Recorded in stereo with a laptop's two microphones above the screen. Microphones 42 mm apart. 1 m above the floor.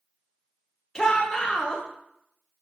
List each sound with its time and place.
0.9 s a shout: 15° left (ahead or behind), 0.7 m